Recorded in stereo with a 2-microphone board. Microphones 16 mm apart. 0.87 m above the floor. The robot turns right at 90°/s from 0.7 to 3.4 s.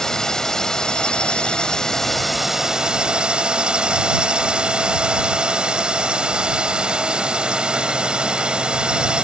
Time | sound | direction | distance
0.0 | a drone | 40° left | ?